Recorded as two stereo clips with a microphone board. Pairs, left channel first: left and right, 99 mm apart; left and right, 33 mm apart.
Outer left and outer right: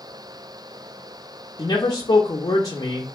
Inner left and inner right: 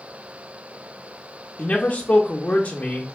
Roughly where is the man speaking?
Left.